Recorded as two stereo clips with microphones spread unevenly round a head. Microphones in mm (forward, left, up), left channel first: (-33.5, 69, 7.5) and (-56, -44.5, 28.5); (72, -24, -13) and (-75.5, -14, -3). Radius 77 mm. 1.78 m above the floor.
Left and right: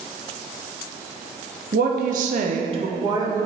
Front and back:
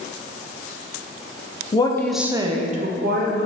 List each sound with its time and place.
1.7 s a woman speaking: 65° right, 0.9 m; by 3.5 s 165° right, 1.6 m